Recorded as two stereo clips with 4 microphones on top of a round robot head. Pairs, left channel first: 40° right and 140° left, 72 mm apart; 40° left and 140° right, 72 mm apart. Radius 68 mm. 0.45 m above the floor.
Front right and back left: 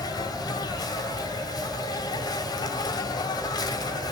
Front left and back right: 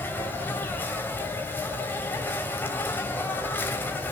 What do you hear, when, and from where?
0.0 s an insect: 20° right, 3 m